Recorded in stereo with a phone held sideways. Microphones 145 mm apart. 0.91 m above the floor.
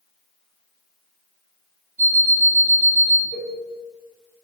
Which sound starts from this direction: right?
An alarm clock, at 2.0 s.